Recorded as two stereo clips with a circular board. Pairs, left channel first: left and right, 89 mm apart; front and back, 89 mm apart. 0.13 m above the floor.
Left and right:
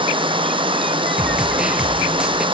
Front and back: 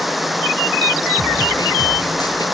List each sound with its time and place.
0.0 s running water: 90° right, 1.3 m
1.2 s a snare drum: 10° right, 1.8 m